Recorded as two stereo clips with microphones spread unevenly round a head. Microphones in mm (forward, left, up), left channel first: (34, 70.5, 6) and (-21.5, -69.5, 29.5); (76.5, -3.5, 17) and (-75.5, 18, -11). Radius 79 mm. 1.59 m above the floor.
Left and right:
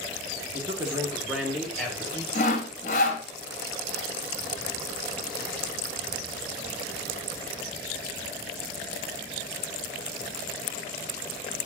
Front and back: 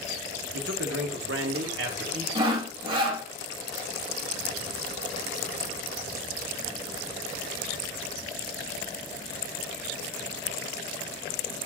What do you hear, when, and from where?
0.5 s a man speaking: 175° right, 1.2 m; by 2.2 s 150° left, 1.5 m
2.4 s sawing: 110° left, 0.9 m